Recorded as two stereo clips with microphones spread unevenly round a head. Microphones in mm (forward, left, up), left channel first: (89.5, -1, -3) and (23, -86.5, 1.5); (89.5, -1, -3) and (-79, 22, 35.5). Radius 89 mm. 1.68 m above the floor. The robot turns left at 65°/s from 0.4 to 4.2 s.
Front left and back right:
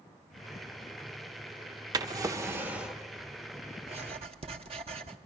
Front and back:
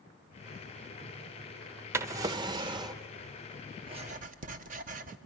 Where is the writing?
135° right, 0.9 m; by 5.2 s 160° right, 0.9 m.